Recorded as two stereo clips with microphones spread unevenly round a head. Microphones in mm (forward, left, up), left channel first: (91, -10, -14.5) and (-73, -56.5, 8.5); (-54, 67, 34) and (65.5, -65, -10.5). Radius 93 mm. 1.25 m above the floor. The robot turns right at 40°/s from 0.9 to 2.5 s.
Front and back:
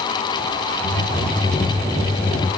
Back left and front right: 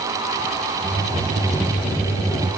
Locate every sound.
Only background noise.